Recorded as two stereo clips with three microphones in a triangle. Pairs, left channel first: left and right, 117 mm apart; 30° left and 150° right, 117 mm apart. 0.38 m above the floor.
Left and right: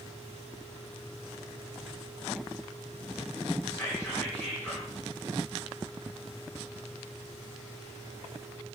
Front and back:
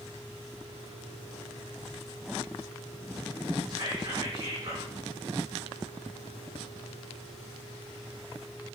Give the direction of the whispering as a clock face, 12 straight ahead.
7 o'clock.